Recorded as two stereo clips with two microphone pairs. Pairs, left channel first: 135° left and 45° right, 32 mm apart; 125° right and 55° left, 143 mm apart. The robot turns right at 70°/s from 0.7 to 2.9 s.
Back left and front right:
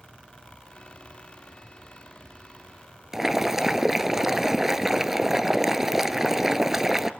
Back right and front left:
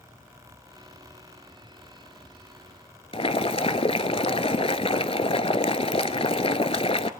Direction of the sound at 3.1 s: 125° right.